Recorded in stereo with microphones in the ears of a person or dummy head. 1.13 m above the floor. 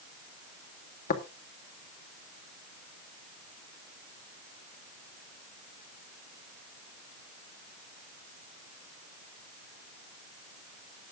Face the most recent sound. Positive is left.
turn(degrees=50)  # may be behind; listen again after turning